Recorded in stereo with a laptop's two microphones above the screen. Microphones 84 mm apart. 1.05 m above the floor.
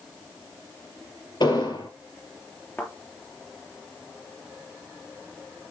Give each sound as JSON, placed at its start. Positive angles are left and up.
{"t": 1.4, "sound": "an explosion", "side_deg": 60, "distance_m": 4.0}
{"t": 2.8, "sound": "a thud", "side_deg": 20, "distance_m": 3.5}